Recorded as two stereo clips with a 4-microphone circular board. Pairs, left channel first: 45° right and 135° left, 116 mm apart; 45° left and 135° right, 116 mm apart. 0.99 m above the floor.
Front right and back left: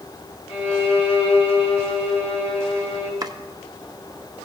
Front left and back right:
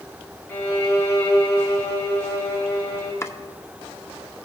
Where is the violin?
25° right, 2.5 m.